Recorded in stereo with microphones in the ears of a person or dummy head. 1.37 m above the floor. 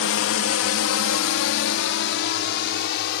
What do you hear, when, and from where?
0.0 s a drone: 60° left (ahead or behind)